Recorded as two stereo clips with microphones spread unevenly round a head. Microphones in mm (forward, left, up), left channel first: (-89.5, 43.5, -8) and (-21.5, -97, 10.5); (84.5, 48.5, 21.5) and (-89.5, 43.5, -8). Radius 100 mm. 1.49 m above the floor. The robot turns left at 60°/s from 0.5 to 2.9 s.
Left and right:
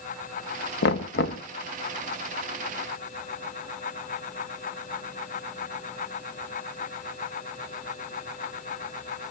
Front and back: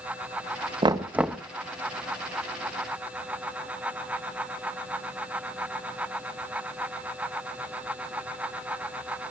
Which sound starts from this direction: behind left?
Knocking, at 0.8 s.